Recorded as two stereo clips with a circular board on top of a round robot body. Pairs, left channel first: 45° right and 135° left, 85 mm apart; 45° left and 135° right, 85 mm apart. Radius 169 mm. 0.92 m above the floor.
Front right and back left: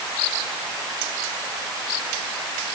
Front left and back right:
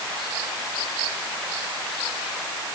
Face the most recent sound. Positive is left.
No sound to turn to.